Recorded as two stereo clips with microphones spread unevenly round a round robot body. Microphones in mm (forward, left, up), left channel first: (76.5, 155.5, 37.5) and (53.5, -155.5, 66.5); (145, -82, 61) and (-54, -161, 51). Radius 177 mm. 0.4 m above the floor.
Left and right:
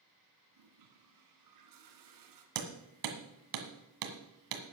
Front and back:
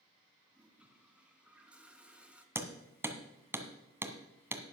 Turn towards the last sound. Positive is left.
turn(degrees=-80)